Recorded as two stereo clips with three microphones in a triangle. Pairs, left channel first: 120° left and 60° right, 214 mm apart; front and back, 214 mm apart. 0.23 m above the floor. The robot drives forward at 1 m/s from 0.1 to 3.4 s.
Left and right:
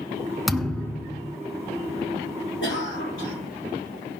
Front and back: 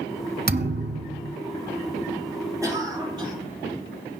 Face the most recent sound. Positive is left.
turn(degrees=115)